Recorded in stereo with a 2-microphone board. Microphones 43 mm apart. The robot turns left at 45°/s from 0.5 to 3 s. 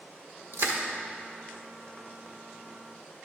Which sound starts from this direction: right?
Crushing, at 0.5 s.